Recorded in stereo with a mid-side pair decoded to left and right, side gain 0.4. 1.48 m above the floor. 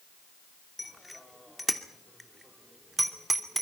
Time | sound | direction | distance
0.8 | a bicycle bell | 15° left | 2.5 m